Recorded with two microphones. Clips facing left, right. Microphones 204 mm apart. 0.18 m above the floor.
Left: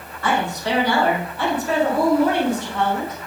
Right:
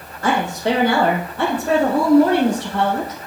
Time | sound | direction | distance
0.2 | a woman speaking | 45° right (ahead or behind) | 5 m